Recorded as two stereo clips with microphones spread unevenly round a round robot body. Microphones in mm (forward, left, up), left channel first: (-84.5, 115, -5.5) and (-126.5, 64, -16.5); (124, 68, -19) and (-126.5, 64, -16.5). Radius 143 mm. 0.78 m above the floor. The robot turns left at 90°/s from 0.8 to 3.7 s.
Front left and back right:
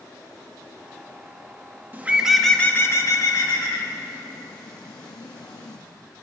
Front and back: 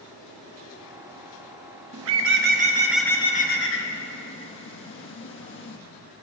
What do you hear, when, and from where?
1.9 s a bird: 175° right, 1.3 m; by 5.8 s 25° left, 1.3 m